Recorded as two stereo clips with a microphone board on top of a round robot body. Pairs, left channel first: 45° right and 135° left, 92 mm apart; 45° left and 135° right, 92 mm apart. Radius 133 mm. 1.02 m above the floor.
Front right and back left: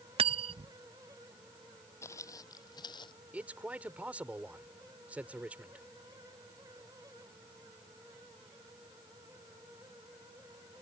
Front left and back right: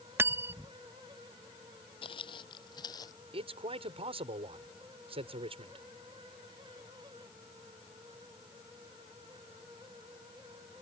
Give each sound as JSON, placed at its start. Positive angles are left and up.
{"t": 0.2, "sound": "cutlery clinking", "azimuth_deg": 160}
{"t": 2.0, "sound": "footsteps", "azimuth_deg": 20}
{"t": 3.3, "sound": "a man speaking", "azimuth_deg": -150}